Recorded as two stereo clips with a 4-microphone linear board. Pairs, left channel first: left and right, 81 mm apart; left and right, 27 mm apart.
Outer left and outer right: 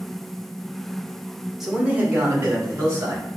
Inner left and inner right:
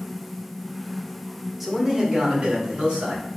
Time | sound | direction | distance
1.6 | a man speaking | 5° right (ahead or behind) | 0.9 m